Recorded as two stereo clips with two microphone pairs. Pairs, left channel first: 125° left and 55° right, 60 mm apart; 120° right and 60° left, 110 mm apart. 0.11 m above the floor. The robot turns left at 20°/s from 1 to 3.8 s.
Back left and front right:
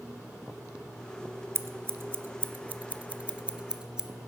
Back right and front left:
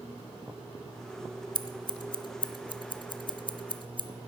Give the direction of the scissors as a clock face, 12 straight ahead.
3 o'clock.